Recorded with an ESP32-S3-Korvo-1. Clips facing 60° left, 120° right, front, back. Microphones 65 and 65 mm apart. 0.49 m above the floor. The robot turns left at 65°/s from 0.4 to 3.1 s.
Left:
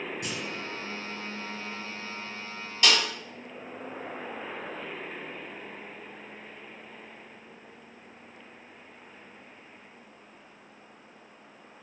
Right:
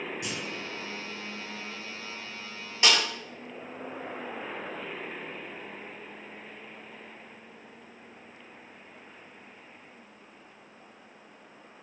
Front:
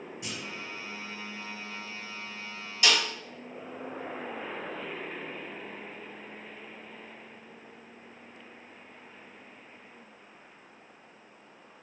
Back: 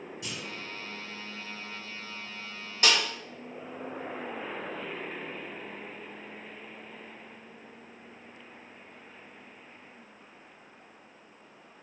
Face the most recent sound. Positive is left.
turn(degrees=175)